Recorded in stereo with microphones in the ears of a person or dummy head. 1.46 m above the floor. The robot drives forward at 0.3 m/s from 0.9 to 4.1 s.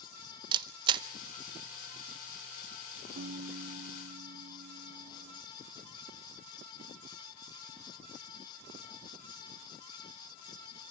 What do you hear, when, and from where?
0.5 s a camera shutter: 30° right (ahead or behind), 0.9 m
3.2 s a piano: 45° right (ahead or behind), 1.5 m; by 5.4 s 40° right (ahead or behind), 1.7 m